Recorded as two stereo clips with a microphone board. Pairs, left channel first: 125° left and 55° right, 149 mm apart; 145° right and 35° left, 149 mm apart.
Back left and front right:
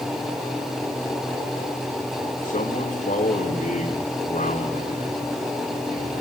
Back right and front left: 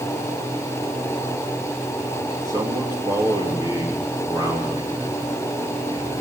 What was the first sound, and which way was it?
A man speaking, 100° left.